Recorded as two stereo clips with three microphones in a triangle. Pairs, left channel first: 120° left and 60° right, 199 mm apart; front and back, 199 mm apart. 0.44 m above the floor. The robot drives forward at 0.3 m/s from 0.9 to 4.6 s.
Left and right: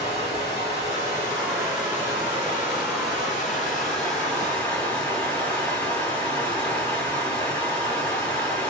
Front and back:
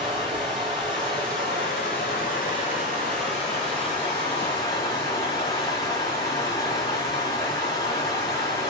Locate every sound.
0.0 s running water: 15° left, 1.8 m; by 8.7 s 45° left, 1.1 m